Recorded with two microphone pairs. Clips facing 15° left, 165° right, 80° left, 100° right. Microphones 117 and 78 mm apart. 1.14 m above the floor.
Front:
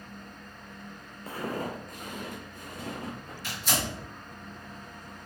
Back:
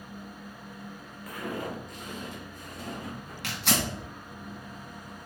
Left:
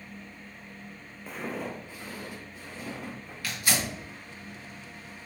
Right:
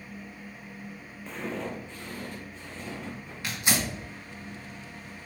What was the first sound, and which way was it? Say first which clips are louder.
Footsteps: front 1 dB, right 1 dB; straight ahead.